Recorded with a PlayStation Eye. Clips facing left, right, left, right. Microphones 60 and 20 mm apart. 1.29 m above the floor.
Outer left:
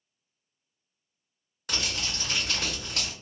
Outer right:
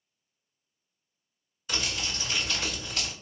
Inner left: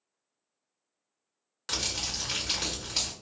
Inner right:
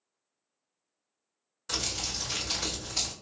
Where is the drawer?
No drawer in this recording.